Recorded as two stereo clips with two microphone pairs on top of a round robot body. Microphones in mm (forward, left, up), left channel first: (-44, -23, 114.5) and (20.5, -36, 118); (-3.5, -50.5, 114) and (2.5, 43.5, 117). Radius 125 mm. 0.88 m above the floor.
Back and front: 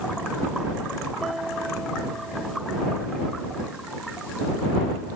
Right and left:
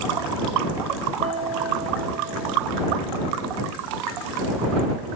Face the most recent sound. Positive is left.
turn(degrees=80)